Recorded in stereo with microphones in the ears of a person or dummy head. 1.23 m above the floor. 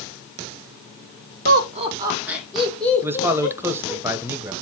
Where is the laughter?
50° right (ahead or behind), 1.4 m; by 4.0 s 20° left (ahead or behind), 4 m.